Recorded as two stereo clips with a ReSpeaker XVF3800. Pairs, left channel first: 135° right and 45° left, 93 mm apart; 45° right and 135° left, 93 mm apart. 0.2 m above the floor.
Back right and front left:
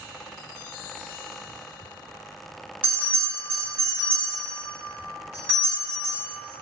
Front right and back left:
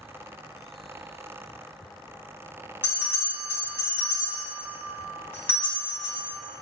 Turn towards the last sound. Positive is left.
turn(degrees=-5)